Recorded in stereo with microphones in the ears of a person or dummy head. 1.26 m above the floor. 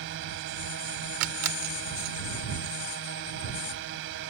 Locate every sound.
0.0 s a drone: 70° right (ahead or behind)
1.2 s a camera shutter: 75° right (ahead or behind)